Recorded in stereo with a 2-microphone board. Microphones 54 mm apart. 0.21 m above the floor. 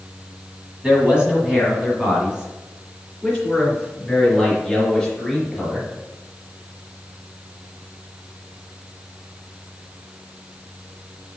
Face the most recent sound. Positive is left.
turn(degrees=0)  # may be behind; listen again after turning